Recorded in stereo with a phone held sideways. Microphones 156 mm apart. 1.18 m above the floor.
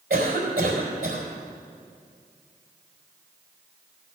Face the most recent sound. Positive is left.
turn(degrees=-80)